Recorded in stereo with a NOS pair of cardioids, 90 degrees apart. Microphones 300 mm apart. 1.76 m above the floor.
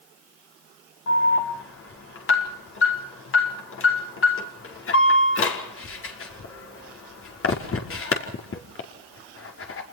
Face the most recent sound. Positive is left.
turn(degrees=45)